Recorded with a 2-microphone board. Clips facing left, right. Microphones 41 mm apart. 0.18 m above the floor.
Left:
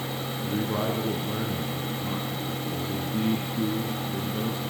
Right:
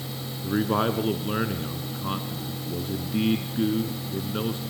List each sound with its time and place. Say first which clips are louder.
0.4 s a man speaking: right 5 dB; 50° right (ahead or behind), 1.6 m